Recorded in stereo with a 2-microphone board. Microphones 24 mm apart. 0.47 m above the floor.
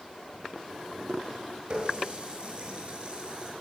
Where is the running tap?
40° right (ahead or behind), 5.5 m.